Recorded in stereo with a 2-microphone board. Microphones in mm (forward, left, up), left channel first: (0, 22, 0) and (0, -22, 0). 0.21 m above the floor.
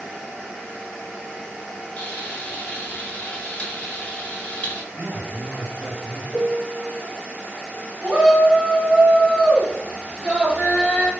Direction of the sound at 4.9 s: 25° right (ahead or behind).